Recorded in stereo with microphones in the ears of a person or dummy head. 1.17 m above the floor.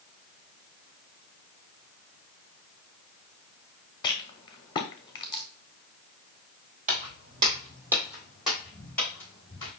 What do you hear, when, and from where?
4.0 s a rattle: 25° left (ahead or behind), 0.7 m
6.9 s footsteps: 45° right (ahead or behind), 1.7 m; by 9.7 s 15° left (ahead or behind), 4 m